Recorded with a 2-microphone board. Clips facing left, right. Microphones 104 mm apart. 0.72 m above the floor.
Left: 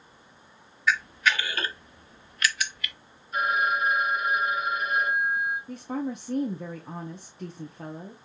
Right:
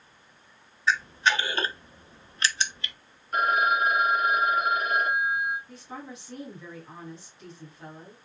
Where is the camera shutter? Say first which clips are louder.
Right 1 dB; 30° right (ahead or behind), 0.6 m.